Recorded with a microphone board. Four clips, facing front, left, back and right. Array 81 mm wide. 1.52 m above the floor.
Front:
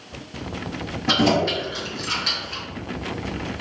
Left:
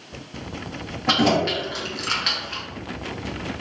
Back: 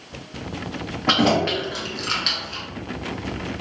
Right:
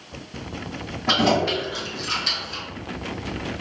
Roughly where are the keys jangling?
Behind.